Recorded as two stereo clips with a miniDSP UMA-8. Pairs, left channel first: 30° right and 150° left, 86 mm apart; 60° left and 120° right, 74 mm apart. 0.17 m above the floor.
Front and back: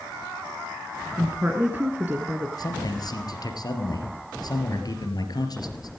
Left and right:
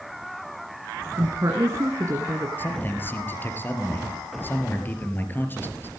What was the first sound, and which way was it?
A woman speaking, 150° right.